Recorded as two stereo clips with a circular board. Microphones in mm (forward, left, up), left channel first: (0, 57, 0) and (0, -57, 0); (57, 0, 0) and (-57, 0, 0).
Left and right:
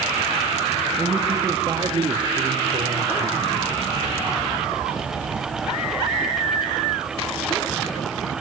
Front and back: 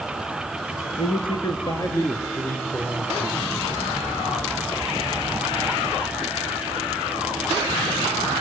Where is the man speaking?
15° right, 2 m; by 3.5 s 75° right, 4.5 m.